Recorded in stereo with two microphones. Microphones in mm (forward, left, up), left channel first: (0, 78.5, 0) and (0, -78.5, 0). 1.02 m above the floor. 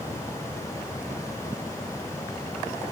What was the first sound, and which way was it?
Only background noise.